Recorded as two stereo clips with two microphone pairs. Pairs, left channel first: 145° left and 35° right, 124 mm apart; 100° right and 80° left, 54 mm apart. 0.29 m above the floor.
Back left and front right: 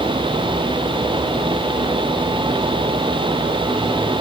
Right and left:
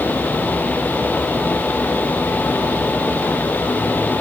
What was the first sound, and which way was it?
Only background noise.